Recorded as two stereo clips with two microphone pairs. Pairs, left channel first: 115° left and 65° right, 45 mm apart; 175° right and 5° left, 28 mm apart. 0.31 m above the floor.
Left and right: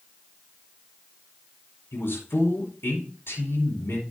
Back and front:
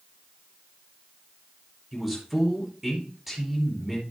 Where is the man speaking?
85° left, 5.5 m.